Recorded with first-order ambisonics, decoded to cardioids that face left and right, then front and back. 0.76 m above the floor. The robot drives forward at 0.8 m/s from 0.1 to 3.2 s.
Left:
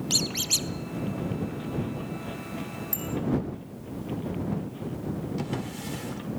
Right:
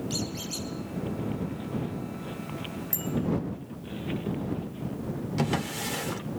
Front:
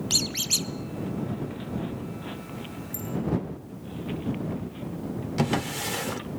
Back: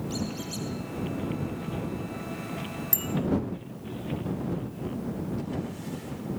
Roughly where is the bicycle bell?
Behind.